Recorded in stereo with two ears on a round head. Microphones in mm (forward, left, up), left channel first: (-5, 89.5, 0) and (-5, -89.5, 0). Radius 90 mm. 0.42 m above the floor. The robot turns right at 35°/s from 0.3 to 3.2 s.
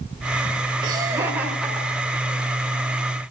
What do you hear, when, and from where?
0.8 s laughter: 25° right (ahead or behind), 1.4 m; by 2.4 s 20° left (ahead or behind), 1.4 m